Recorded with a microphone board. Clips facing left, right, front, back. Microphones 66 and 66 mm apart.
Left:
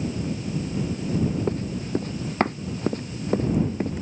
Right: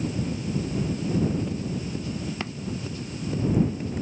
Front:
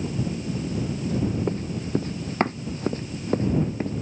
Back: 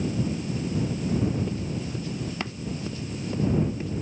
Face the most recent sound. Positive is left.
turn(degrees=50)